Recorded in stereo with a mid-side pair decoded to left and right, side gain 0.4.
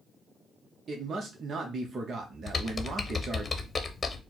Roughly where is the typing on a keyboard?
Ahead left.